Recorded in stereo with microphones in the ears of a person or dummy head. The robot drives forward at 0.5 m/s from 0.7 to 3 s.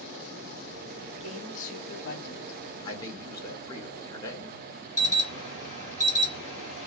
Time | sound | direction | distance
1.2 | a woman speaking | 40° left (ahead or behind) | 1.1 m
2.9 | a man speaking | 25° left (ahead or behind) | 1.0 m
5.0 | an alarm | 35° right (ahead or behind) | 1.0 m